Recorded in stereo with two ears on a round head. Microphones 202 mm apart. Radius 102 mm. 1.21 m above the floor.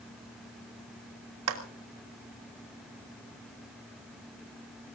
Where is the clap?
90° right, 3 m.